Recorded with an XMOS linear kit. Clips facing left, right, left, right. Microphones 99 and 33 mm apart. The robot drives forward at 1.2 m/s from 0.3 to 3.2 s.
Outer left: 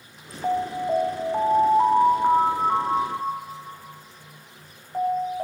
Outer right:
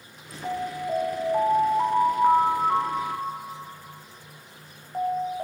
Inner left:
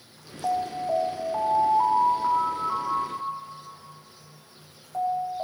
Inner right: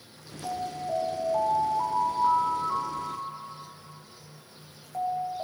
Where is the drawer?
No drawer in this recording.